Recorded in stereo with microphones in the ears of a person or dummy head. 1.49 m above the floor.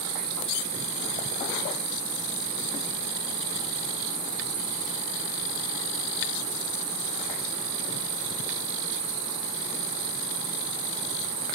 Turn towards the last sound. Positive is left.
turn(degrees=-25)  # may be behind; listen again after turning